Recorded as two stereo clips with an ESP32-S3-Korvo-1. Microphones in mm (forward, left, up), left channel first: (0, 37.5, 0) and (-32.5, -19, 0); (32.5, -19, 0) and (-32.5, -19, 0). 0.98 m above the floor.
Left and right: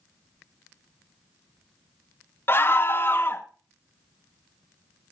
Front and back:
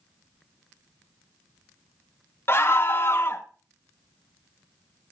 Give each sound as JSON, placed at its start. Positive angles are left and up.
{"t": 2.5, "sound": "a scream", "azimuth_deg": 25, "distance_m": 0.9}